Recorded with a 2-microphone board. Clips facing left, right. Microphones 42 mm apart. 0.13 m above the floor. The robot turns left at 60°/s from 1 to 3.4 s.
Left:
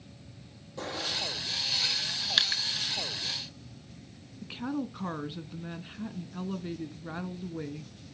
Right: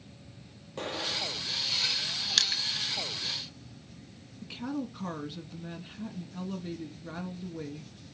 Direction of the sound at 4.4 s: 20° left (ahead or behind).